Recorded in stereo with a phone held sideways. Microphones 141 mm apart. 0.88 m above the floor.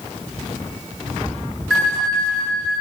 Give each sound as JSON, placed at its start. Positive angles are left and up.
{"t": 1.7, "sound": "a bell", "side_deg": 0, "distance_m": 1.8}